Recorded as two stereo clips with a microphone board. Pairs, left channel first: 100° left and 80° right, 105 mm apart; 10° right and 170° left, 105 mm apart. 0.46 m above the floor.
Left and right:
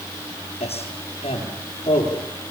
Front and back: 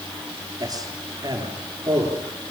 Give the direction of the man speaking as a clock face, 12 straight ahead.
8 o'clock.